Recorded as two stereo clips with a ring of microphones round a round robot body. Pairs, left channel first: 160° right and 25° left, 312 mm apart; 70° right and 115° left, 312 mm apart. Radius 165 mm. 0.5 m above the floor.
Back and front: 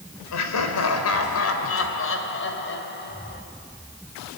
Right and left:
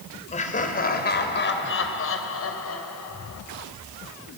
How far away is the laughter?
About 3 m.